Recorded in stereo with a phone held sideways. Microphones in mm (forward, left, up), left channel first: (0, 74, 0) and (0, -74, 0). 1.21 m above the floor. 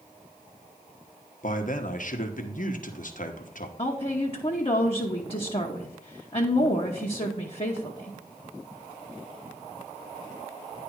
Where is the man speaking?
65° left (ahead or behind), 1.1 m.